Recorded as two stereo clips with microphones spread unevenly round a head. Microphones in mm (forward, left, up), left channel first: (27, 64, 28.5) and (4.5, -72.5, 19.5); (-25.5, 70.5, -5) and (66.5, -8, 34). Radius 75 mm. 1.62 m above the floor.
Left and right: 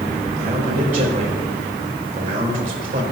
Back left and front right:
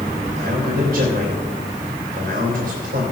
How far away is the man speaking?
About 3 m.